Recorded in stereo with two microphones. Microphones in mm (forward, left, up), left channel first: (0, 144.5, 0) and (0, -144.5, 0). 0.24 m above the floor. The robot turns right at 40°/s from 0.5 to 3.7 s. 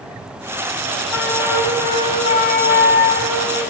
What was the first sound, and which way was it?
A flute, 15° right.